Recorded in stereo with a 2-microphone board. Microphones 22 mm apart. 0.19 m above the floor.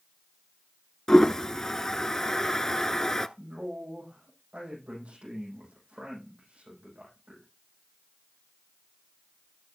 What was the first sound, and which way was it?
A toilet flushing, 25° left (ahead or behind).